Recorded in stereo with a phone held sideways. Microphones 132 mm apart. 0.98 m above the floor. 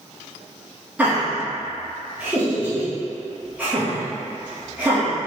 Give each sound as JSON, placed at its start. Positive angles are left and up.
{"t": 1.0, "sound": "laughter", "side_deg": -10, "distance_m": 1.0}